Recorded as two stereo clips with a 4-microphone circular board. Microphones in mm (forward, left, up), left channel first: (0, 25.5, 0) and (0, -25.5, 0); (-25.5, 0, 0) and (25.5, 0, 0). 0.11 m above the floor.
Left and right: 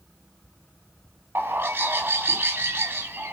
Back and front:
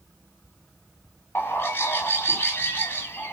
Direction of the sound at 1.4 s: 130° right.